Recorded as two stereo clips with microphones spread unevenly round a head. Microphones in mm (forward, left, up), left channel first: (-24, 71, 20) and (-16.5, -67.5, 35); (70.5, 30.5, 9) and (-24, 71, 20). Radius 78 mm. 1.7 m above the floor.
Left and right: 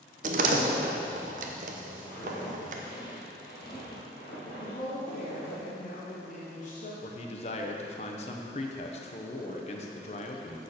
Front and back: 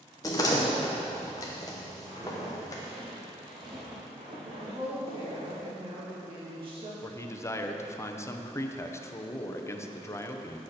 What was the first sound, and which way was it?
A door slam, 90° right.